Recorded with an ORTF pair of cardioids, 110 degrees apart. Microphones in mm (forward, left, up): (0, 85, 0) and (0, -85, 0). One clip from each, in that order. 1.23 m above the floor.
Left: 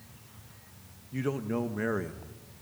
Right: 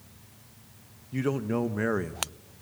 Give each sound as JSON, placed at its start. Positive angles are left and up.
{"t": 1.1, "sound": "a man speaking", "azimuth_deg": -20, "distance_m": 1.3}